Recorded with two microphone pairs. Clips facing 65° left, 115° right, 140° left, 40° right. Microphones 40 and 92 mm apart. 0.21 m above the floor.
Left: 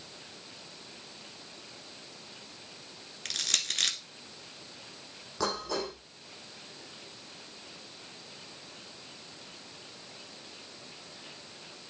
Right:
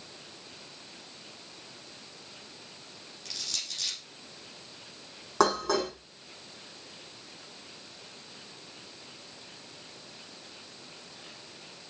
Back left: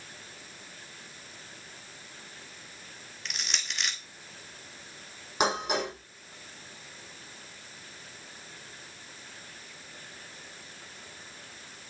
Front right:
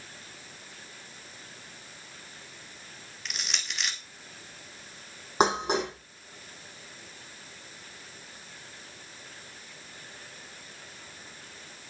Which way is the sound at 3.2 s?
55° left.